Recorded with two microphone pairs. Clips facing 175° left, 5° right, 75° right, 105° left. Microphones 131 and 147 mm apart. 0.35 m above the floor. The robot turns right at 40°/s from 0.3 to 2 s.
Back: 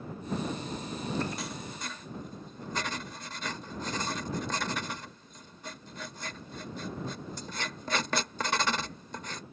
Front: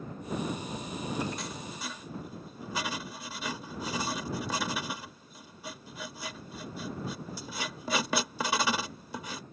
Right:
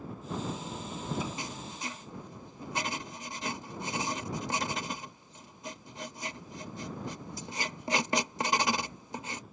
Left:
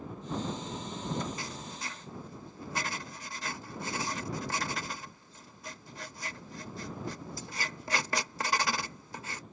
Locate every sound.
1.4 s writing: 95° right; by 9.4 s 70° right